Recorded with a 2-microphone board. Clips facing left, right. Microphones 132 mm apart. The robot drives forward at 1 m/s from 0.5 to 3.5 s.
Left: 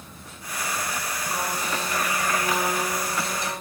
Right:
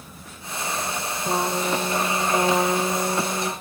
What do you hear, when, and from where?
1.2 s a trumpet: 80° right, 6 m; by 3.5 s 70° right (ahead or behind), 6 m